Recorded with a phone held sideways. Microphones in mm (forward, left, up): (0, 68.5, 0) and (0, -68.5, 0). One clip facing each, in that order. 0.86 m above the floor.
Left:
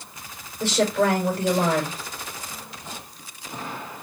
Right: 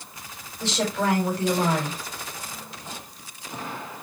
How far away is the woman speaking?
About 5.5 m.